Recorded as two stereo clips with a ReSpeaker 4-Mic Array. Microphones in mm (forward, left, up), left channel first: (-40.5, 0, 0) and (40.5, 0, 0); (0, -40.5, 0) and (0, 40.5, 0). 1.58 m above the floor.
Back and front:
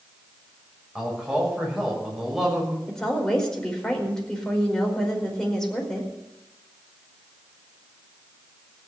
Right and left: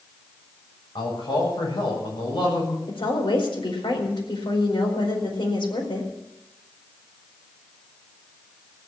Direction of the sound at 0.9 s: 90° right.